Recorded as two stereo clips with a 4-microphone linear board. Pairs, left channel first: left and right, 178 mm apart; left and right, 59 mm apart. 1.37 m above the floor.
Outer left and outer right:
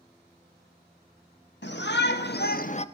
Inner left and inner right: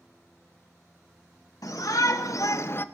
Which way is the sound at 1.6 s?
80° left.